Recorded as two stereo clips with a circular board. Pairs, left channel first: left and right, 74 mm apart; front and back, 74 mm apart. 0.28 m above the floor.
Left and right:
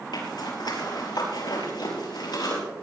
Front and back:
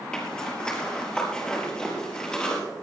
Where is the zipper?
80° left, 4.5 m.